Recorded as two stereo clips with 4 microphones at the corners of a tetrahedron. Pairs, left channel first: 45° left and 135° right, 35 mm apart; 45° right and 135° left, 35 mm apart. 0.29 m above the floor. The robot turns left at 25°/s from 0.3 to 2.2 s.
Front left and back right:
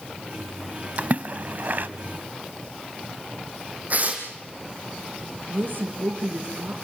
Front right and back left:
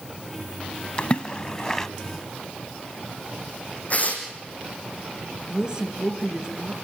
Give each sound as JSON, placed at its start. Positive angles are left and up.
{"t": 1.0, "sound": "a splash", "azimuth_deg": -100, "distance_m": 0.8}
{"t": 3.9, "sound": "tearing paper", "azimuth_deg": -90, "distance_m": 5.0}
{"t": 5.5, "sound": "a woman speaking", "azimuth_deg": -160, "distance_m": 4.0}